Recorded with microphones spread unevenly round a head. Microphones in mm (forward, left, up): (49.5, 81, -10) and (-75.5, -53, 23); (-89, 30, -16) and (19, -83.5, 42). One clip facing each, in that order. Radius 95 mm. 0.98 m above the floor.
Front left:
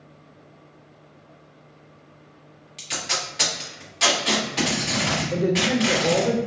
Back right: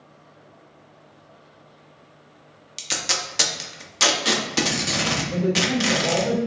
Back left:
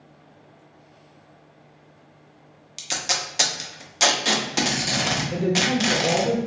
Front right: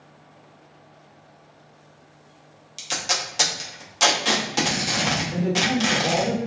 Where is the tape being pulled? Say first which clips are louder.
Back right 1 dB, front right 1 dB; 145° right, 0.7 m.